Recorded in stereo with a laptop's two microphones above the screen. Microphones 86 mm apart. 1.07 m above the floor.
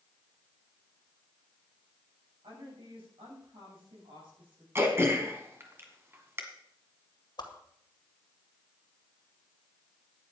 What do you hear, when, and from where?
2.4 s a woman speaking: 85° right, 7.5 m; by 4.7 s 80° right, 8 m
4.8 s throat clearing: 30° right (ahead or behind), 1.7 m
7.4 s a whoosh: 60° left (ahead or behind), 1.9 m